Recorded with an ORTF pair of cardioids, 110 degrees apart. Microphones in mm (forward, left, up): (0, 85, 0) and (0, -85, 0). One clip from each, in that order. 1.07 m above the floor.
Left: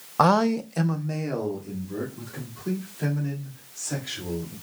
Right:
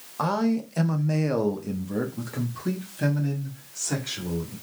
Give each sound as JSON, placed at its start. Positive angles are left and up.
{"t": 0.2, "sound": "a man speaking", "azimuth_deg": 45, "distance_m": 0.5}